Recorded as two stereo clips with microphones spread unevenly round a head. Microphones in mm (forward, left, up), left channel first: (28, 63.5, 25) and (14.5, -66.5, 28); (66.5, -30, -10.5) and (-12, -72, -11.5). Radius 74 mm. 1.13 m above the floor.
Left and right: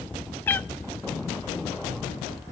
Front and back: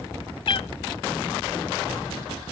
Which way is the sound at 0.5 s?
10° left.